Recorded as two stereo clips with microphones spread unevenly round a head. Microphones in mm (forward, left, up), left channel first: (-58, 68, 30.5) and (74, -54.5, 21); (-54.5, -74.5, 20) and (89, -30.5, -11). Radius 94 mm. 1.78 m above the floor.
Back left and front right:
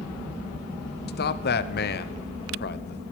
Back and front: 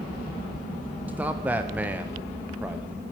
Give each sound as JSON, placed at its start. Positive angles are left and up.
{"t": 1.1, "sound": "a man speaking", "azimuth_deg": 100, "distance_m": 1.0}